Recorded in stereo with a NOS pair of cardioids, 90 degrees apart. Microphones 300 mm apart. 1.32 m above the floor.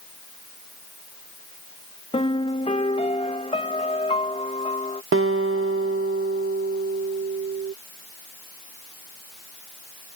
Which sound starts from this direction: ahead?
A piano, at 2.1 s.